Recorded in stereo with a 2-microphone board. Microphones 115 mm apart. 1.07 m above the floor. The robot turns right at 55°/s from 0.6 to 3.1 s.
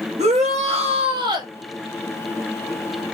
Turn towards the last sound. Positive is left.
turn(degrees=60)